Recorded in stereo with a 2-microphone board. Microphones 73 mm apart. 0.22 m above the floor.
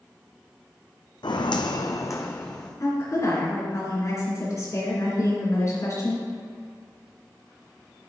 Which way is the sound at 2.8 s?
45° left (ahead or behind).